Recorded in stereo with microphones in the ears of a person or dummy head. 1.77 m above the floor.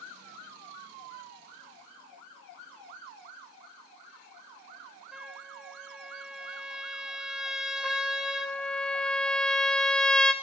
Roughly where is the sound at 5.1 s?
Centre.